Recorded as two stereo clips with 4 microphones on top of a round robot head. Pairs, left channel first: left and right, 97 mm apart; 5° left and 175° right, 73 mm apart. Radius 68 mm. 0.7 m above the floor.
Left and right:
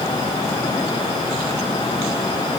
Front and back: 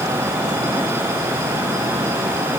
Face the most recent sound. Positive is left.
No sound to turn to.